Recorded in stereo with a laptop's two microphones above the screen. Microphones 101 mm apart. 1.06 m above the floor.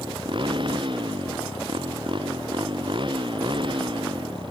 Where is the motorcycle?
55° right (ahead or behind).